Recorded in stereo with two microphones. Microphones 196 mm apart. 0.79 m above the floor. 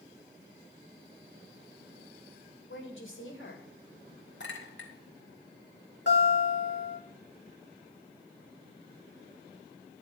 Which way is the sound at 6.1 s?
60° left (ahead or behind).